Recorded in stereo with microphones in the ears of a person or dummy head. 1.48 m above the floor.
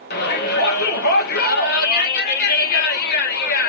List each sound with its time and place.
0.1 s a shout: 60° left (ahead or behind), 2 m